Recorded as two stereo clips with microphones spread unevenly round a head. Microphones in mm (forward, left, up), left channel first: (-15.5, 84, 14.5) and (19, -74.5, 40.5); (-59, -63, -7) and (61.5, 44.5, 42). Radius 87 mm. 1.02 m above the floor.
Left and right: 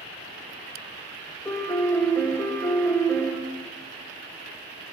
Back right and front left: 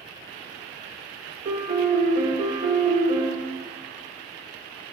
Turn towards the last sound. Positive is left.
turn(degrees=60)